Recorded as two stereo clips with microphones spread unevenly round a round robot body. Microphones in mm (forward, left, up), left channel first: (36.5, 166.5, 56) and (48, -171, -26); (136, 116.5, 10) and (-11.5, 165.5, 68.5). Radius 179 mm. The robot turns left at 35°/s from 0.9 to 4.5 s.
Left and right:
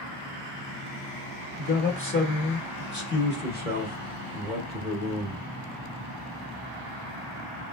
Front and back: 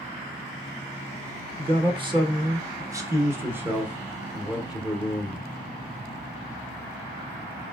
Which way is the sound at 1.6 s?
115° left.